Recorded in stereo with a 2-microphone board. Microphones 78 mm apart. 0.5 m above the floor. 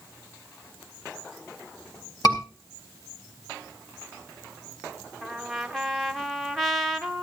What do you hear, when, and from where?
2.2 s a scream: 50° left (ahead or behind), 4.5 m
5.2 s a trumpet: 5° left (ahead or behind), 0.9 m